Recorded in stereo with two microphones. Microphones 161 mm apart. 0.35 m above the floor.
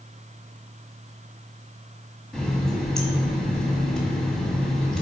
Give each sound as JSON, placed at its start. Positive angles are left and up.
{"t": 2.3, "sound": "a running tap", "side_deg": 5, "distance_m": 1.8}